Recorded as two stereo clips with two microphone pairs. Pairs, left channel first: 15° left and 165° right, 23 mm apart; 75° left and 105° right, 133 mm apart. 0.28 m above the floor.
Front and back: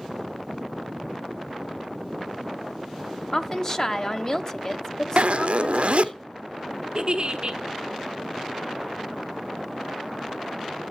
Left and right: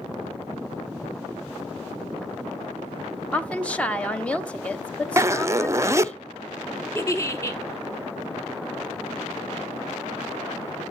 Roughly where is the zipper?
Behind.